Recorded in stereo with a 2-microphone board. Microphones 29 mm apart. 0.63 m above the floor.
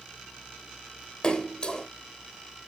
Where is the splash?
35° left (ahead or behind), 1.2 m.